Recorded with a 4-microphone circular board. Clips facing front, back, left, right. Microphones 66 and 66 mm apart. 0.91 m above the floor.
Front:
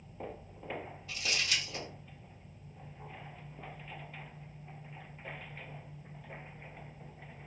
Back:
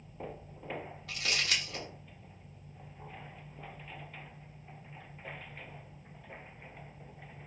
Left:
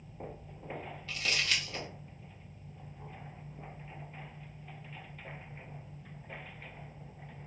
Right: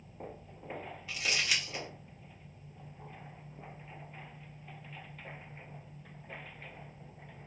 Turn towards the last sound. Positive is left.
turn(degrees=-165)